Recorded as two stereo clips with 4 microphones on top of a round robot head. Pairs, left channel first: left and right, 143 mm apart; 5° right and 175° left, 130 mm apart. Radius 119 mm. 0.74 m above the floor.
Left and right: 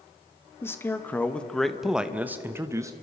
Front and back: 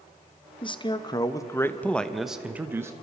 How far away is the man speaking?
About 1.4 m.